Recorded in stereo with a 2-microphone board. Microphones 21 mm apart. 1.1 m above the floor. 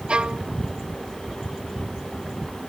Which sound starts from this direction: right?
A violin, at 0.1 s.